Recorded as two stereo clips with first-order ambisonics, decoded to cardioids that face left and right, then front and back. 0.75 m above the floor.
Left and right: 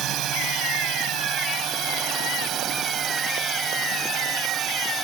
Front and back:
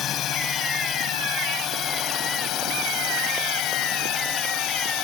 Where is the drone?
50° right; by 5.0 s 30° right.